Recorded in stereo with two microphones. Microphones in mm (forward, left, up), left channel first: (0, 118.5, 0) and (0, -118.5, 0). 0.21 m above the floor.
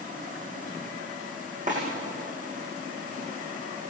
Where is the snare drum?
35° right (ahead or behind), 8.5 m.